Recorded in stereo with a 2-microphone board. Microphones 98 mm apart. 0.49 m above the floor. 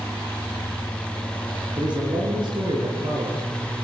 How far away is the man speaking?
About 9 m.